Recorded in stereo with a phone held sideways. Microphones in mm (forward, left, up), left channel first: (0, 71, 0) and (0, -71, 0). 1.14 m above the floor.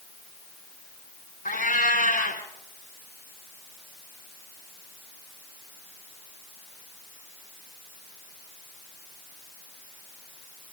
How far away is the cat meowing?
About 4.5 m.